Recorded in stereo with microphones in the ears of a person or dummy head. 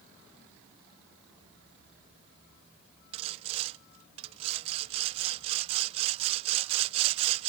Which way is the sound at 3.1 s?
30° right (ahead or behind).